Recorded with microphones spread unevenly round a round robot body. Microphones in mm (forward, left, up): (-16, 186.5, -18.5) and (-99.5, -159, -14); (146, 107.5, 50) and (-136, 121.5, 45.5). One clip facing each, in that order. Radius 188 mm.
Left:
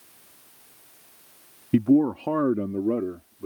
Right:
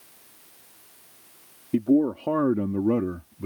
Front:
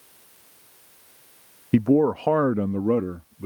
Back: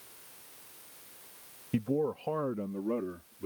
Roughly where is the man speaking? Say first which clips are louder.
Left 2 dB, front 12 dB; ahead.